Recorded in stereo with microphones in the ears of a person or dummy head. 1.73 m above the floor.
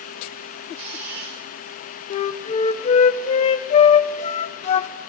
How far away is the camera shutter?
About 3.5 m.